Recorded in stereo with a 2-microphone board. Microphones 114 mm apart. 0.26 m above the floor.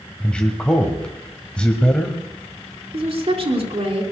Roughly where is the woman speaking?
Right.